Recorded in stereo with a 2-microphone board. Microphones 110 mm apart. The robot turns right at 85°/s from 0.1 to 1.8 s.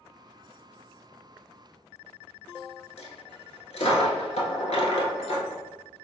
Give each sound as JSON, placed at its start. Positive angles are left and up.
{"t": 3.0, "sound": "a dropped coin", "side_deg": 85, "distance_m": 0.8}